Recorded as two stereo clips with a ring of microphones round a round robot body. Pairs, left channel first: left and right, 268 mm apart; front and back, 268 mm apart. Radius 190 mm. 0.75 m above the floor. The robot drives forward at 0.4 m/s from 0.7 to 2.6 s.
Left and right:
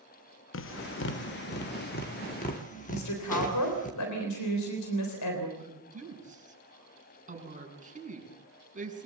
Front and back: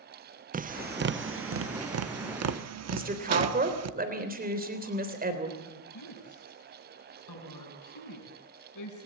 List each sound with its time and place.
0.5 s tapping: 125° left, 0.6 m; by 3.9 s 160° left, 1.2 m
2.9 s a woman speaking: 125° left, 3.5 m
5.6 s a woman speaking: 30° right, 6 m